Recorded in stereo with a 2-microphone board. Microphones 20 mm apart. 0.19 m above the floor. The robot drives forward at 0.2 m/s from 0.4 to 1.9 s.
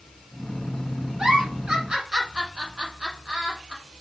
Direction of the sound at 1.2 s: 50° right (ahead or behind).